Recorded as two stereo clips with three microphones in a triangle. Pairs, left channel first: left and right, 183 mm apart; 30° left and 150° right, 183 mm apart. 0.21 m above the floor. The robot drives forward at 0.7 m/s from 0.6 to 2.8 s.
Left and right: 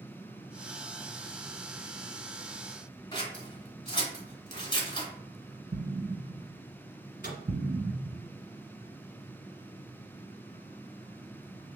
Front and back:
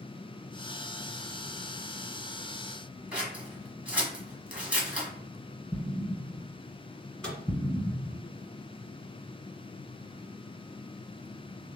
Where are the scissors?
130° left, 1.4 m.